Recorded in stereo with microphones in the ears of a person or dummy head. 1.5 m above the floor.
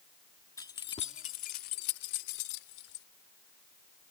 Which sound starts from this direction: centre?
Keys jangling, at 0.6 s.